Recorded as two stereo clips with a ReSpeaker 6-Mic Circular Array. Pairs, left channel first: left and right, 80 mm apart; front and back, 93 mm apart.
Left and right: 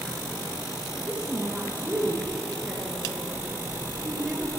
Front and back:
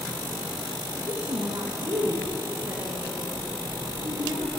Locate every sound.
1.0 s a woman speaking: 160° right, 3 m